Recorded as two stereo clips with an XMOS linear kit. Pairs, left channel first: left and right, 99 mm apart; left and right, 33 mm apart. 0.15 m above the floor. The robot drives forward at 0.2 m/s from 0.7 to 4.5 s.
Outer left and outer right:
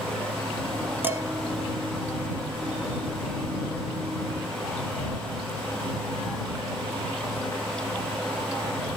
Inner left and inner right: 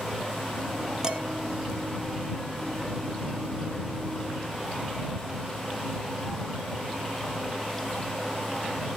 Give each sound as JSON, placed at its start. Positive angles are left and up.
{"t": 1.0, "sound": "dishes clattering", "side_deg": -20, "distance_m": 1.2}